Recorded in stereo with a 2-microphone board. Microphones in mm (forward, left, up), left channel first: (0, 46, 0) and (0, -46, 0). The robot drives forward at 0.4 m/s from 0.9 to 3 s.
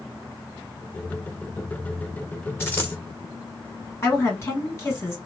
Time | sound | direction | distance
2.6 | a dropped coin | 25° left (ahead or behind) | 1.0 m
4.0 | a woman speaking | 30° left (ahead or behind) | 2 m